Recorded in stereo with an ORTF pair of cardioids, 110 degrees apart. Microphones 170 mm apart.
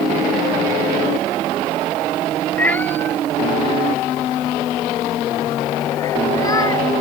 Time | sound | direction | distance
2.6 | a cat meowing | 10° left | ?